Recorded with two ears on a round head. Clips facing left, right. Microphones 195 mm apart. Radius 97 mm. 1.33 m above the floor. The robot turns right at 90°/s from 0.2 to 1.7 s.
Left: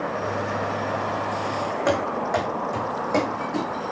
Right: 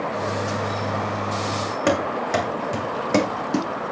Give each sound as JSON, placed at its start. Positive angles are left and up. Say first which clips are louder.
{"t": 1.9, "sound": "running footsteps", "louder": "right 2 dB", "side_deg": -40, "distance_m": 4.0}